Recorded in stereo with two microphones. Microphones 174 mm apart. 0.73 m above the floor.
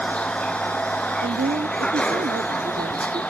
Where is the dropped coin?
No dropped coin in this recording.